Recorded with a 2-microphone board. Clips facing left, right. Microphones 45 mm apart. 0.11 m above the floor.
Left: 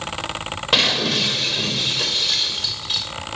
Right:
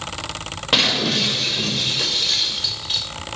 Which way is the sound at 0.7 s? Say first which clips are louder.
Even; 5° right (ahead or behind).